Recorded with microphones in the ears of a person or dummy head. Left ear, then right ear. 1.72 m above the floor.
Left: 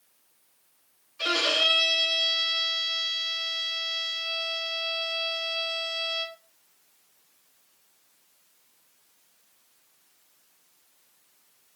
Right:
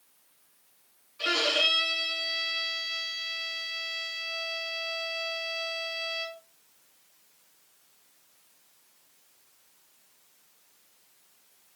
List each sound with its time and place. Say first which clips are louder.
1.2 s a violin: left 1 dB; 10° left (ahead or behind), 1.0 m